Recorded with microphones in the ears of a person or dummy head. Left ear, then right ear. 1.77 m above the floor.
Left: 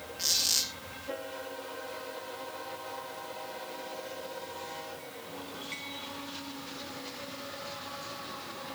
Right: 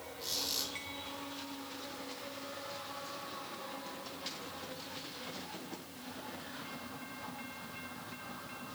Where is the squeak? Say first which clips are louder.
Left 9 dB; 50° left (ahead or behind), 2.5 m.